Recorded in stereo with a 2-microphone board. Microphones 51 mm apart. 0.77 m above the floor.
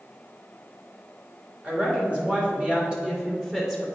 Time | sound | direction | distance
1.6 | a woman speaking | 35° right (ahead or behind) | 3 m